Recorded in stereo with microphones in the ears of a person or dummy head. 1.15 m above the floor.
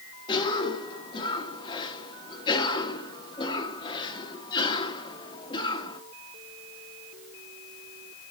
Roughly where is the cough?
Left.